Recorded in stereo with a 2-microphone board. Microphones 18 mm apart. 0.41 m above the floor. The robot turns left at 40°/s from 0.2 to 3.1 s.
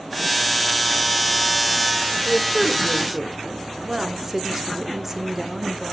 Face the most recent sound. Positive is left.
turn(degrees=-20)  # may be behind; listen again after turning